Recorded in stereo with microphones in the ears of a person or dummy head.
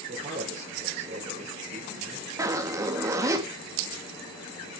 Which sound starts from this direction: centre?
A zipper, at 2.4 s.